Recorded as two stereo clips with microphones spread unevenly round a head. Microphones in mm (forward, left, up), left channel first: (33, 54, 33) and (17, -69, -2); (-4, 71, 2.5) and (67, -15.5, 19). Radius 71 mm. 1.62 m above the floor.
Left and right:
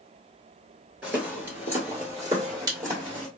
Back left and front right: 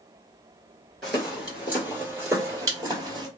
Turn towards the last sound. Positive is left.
turn(degrees=-35)